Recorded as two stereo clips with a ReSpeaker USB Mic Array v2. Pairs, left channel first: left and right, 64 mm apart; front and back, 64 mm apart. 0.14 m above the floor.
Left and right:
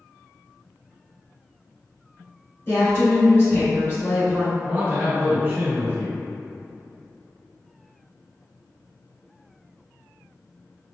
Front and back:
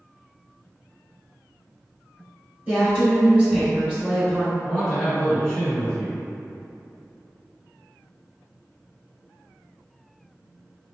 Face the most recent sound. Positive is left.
turn(degrees=-70)